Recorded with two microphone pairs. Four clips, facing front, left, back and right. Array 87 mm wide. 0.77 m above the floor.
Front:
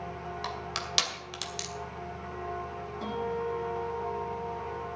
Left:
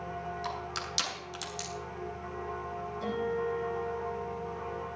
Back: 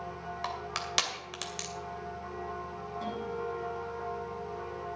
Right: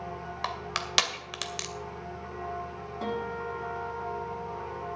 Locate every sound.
0.4 s crushing: 100° right, 2 m
3.0 s a guitar: 75° right, 8 m